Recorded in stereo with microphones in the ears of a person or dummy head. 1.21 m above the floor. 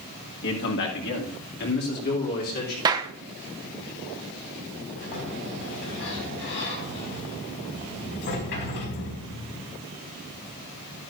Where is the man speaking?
60° left (ahead or behind), 1.9 m; by 2.8 s 45° left (ahead or behind), 3.5 m.